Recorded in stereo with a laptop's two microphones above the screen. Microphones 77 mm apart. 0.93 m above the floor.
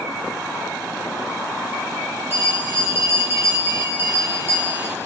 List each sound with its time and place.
2.3 s a bell: 35° right (ahead or behind), 3 m